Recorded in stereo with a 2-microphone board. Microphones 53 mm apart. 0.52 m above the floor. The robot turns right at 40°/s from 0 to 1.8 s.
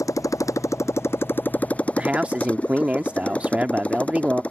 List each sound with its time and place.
0.0 s a motorcycle: 85° left; by 4.5 s 155° left
2.0 s a man speaking: 25° right (ahead or behind)